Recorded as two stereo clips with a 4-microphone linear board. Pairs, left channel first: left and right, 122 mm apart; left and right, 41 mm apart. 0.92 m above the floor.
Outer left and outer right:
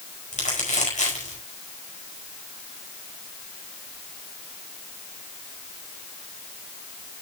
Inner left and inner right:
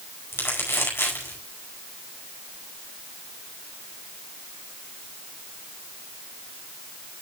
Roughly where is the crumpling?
Left.